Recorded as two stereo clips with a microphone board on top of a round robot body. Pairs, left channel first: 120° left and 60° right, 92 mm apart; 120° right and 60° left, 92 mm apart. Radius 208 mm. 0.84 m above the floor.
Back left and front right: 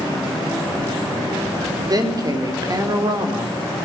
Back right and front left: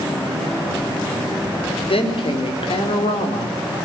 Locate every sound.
1.9 s a woman speaking: 110° right, 4 m